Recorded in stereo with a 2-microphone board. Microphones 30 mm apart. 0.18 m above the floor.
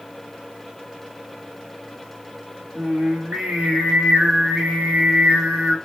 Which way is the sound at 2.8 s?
55° right (ahead or behind).